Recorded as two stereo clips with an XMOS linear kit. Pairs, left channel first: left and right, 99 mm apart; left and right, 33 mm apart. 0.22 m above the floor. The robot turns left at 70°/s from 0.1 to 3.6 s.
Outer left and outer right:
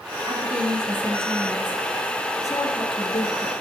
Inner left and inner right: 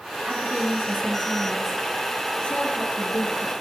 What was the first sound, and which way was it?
A woman speaking, 60° right.